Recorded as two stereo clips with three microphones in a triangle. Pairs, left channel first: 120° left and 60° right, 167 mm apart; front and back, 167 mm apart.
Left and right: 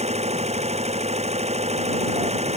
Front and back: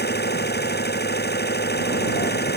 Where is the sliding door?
No sliding door in this recording.